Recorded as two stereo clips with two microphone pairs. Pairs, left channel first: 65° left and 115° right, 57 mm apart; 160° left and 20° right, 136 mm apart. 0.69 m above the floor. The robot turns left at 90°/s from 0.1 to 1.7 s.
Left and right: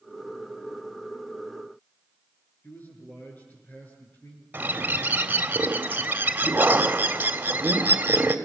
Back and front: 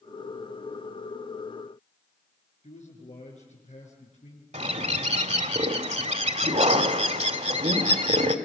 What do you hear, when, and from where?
2.6 s a man speaking: 125° left, 8.5 m
4.5 s a bird: 55° right, 1.7 m